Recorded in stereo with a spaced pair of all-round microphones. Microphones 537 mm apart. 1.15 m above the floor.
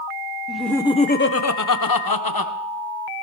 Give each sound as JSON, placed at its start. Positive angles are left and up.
{"t": 0.5, "sound": "laughter", "side_deg": 0, "distance_m": 1.0}